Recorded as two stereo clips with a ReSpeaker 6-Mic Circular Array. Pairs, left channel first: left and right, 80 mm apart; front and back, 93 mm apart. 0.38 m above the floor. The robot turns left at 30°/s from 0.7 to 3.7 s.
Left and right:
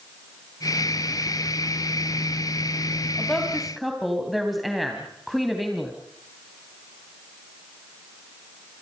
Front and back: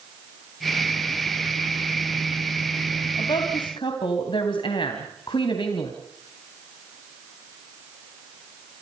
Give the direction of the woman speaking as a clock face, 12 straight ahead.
11 o'clock.